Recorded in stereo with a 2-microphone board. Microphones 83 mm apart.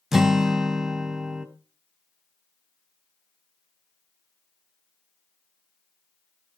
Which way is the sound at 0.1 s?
5° right (ahead or behind).